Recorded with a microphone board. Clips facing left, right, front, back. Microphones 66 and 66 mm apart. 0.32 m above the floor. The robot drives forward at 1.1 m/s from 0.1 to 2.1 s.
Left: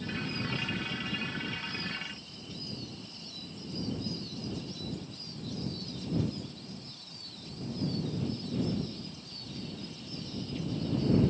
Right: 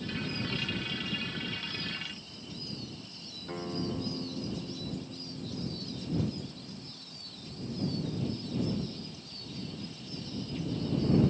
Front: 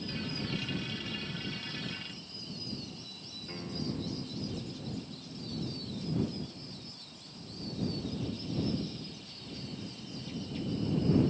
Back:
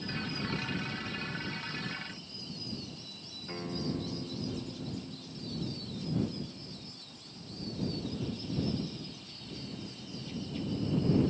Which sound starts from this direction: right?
A guitar, at 3.5 s.